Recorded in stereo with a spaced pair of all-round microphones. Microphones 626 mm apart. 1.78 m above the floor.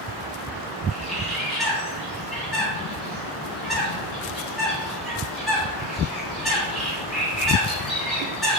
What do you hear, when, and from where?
0.9 s a bird: centre (ahead or behind), 1.5 m